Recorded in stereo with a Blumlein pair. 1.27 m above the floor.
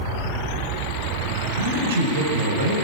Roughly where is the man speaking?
Ahead right.